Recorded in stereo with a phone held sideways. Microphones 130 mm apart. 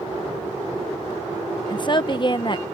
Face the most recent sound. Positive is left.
turn(degrees=35)  # may be behind; listen again after turning